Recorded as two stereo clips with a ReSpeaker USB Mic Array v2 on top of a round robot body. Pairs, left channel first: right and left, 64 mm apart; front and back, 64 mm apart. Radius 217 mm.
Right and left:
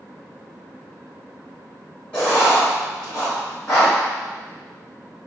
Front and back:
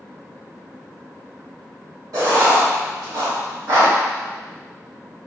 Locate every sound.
2.1 s writing: 160° right, 1.6 m